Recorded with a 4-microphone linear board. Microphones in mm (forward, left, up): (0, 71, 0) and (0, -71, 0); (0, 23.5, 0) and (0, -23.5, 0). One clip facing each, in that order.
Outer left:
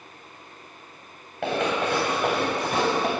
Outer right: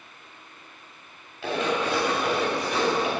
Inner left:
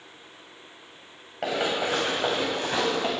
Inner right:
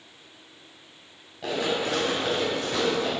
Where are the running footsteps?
65° left (ahead or behind), 5.5 m; by 3.1 s 45° left (ahead or behind), 3.5 m.